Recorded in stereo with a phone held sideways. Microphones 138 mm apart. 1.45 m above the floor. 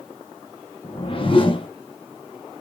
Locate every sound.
0.8 s a whoosh: 40° left (ahead or behind), 0.5 m